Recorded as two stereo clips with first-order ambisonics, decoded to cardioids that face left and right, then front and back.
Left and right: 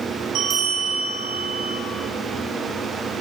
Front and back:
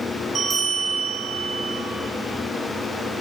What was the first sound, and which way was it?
A bell, 115° right.